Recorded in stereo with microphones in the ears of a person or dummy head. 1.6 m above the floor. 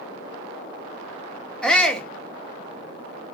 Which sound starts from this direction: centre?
A shout, at 1.6 s.